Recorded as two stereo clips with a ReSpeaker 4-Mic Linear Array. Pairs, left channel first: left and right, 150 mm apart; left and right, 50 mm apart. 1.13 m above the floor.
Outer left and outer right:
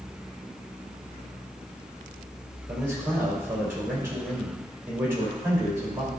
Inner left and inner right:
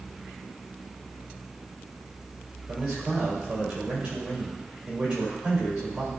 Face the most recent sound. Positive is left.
turn(degrees=-15)  # may be behind; listen again after turning